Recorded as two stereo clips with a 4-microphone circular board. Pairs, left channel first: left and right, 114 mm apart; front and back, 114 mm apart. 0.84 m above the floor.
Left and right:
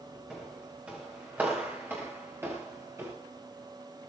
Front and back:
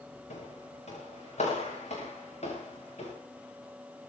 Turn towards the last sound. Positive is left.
turn(degrees=-25)